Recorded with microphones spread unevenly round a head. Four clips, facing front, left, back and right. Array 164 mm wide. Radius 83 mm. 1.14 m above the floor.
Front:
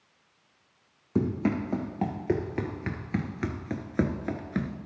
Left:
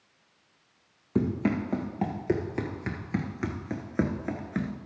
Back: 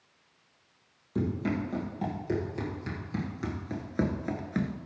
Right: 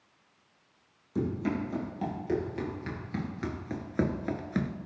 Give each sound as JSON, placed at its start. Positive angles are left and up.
{"t": 1.1, "sound": "running footsteps", "azimuth_deg": 55, "distance_m": 2.0}